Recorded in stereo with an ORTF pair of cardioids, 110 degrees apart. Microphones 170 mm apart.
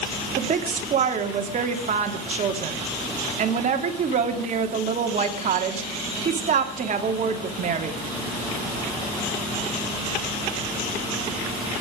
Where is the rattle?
No rattle in this recording.